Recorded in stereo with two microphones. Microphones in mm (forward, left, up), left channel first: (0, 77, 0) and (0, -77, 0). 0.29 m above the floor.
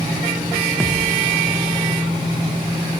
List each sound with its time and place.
0.8 s a thud: 5° left (ahead or behind), 3.5 m